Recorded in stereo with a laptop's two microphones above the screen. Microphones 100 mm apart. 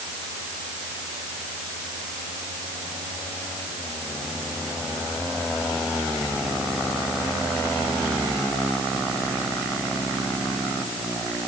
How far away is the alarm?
No alarm in this recording.